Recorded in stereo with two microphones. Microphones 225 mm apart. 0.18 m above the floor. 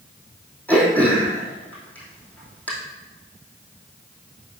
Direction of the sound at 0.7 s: 5° left (ahead or behind).